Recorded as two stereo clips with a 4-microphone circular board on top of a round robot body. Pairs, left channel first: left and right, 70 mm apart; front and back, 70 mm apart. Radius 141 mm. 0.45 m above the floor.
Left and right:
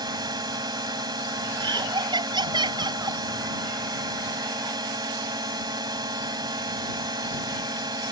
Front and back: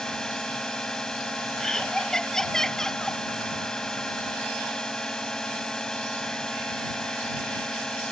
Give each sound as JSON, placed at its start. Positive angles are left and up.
{"t": 0.0, "sound": "a drone", "azimuth_deg": -80}
{"t": 1.6, "sound": "laughter", "azimuth_deg": -85}